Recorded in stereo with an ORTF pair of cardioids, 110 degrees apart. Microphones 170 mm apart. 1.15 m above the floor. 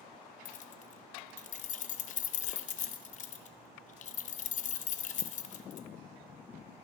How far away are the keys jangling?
About 0.7 m.